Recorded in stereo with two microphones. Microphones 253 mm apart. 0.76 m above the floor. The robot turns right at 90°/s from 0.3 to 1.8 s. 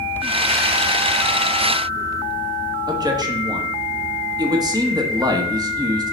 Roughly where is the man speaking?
Centre.